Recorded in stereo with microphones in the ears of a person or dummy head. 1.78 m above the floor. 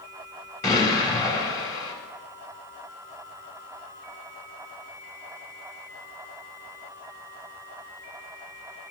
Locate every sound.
0.6 s an explosion: 20° left (ahead or behind), 4.5 m